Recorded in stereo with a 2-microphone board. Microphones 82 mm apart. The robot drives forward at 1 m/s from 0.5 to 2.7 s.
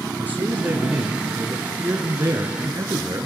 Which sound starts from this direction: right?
A man speaking, at 0.2 s.